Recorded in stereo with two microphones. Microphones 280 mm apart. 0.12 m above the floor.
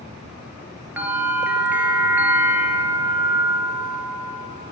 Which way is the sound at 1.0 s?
5° right (ahead or behind).